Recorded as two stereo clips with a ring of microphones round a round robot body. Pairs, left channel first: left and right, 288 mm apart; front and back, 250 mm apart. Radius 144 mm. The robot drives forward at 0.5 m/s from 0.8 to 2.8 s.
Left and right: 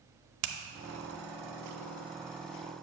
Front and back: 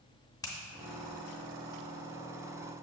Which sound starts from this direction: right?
A finger snap, at 0.4 s.